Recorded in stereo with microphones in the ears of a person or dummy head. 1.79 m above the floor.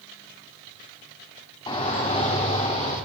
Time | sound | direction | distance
1.7 | a shout | 30° left (ahead or behind) | 4.5 m